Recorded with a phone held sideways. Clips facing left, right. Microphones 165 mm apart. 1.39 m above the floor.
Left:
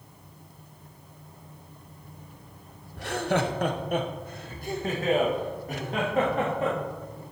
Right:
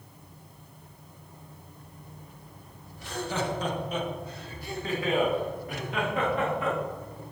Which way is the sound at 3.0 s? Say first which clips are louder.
Left 5 dB; 70° left (ahead or behind).